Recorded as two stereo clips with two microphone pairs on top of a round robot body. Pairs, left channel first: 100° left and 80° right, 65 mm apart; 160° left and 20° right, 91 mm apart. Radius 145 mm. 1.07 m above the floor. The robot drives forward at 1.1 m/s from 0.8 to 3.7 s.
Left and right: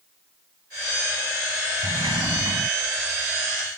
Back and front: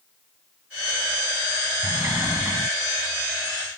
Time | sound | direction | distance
1.8 | a sliding door | 85° right | ?